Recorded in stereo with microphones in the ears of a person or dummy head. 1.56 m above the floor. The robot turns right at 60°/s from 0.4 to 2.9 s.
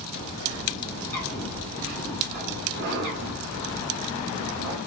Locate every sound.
0.1 s a bird: 130° left, 1.3 m; by 4.8 s 80° right, 1.3 m